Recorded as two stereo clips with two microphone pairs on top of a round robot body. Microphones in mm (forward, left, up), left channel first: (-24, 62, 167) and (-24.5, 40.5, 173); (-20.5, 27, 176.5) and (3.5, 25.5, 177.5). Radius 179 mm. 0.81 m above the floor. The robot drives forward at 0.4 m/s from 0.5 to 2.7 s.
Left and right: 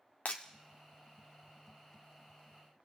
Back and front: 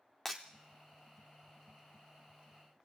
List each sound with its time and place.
0.2 s breaking glass: 95° left, 0.5 m